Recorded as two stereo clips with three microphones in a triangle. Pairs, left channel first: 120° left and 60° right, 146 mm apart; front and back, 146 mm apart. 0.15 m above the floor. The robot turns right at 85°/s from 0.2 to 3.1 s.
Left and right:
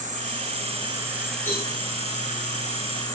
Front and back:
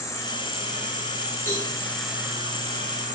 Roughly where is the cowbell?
Behind left.